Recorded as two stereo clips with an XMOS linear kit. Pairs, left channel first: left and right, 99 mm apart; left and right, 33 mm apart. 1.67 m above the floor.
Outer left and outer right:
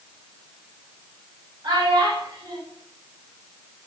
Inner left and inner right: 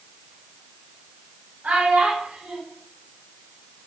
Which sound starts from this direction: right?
A child speaking, at 1.6 s.